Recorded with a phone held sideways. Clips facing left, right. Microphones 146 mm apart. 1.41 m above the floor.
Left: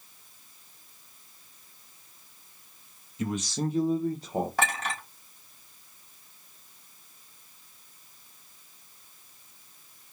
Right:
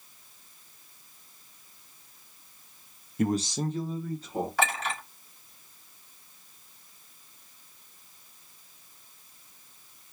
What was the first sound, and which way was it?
A man speaking, 60° right (ahead or behind).